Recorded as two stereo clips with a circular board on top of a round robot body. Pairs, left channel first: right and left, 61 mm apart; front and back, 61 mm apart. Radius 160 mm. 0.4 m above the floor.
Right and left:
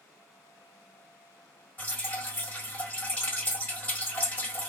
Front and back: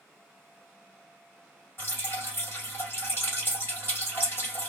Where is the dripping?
35° right, 2 m.